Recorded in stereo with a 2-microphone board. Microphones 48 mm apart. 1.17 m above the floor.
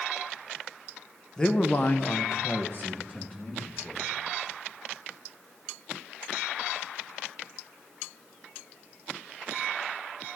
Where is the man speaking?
15° left (ahead or behind), 1.3 m; by 4.0 s 25° left (ahead or behind), 3.5 m.